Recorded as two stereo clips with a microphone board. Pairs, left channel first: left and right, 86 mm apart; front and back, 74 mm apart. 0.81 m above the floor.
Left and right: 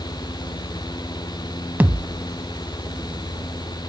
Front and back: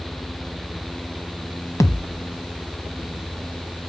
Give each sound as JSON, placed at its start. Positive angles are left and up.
{"t": 1.8, "sound": "a thud", "azimuth_deg": -25, "distance_m": 0.9}